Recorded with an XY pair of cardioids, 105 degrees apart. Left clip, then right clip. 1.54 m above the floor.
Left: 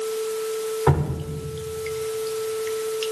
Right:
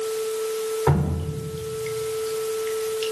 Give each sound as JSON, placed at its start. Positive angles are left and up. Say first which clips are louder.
{"t": 0.9, "sound": "dripping", "louder": "left 1 dB", "azimuth_deg": 20, "distance_m": 4.5}